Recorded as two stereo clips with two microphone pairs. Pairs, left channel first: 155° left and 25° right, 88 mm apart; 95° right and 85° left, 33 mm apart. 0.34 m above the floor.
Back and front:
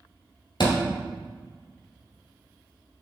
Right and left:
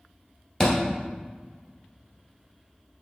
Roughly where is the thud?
Behind.